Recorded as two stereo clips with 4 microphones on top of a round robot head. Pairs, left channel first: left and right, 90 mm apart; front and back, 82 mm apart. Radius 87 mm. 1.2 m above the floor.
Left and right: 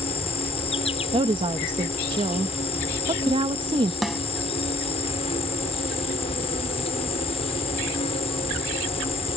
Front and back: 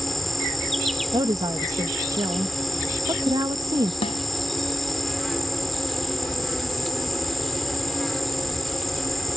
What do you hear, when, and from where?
0.0 s an insect: 90° left
1.1 s a woman speaking: 125° right
4.0 s a snare drum: straight ahead